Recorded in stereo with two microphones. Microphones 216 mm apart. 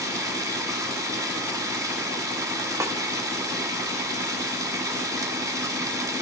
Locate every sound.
0.0 s running water: 15° right (ahead or behind), 1.4 m
2.8 s a snare drum: 15° right (ahead or behind), 1.0 m